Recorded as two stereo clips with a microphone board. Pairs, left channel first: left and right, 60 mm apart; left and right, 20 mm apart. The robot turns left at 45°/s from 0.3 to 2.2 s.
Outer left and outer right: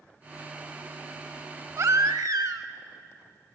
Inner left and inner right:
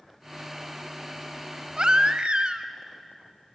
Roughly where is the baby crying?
Right.